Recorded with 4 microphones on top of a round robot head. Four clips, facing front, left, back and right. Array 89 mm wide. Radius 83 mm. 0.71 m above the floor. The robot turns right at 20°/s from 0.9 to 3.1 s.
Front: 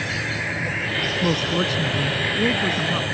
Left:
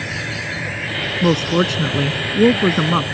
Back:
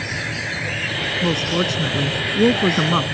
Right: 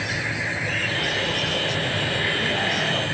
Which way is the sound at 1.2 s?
90° left.